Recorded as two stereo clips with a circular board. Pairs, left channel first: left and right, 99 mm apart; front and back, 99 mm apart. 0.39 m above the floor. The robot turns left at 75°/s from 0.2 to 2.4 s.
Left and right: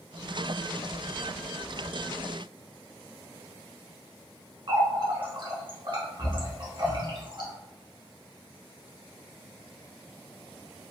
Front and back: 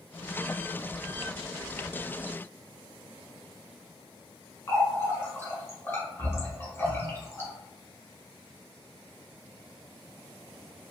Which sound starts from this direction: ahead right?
A running tap, at 4.7 s.